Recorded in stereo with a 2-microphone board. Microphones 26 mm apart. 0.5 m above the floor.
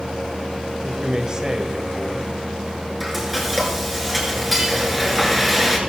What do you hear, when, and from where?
0.7 s a man speaking: 30° right (ahead or behind), 2.0 m
3.0 s frying: 5° right (ahead or behind), 4.5 m